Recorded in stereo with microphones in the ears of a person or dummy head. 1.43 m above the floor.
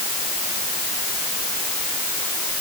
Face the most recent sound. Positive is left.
No sound to turn to.